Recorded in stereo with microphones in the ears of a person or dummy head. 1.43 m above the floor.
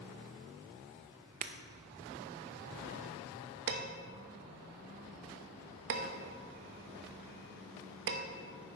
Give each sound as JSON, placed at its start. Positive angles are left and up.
{"t": 1.4, "sound": "breaking glass", "side_deg": -40, "distance_m": 0.7}
{"t": 3.7, "sound": "dishes clattering", "side_deg": -65, "distance_m": 1.1}